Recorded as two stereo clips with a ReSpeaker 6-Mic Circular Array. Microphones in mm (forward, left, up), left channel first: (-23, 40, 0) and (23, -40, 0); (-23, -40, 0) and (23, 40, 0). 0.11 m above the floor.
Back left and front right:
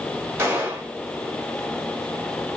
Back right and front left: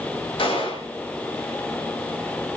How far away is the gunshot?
About 5 m.